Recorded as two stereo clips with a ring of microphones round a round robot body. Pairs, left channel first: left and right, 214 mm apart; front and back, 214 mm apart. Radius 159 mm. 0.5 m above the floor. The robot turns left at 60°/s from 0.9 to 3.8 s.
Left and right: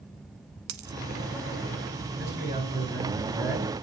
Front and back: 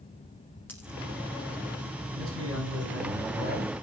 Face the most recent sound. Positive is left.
turn(degrees=125)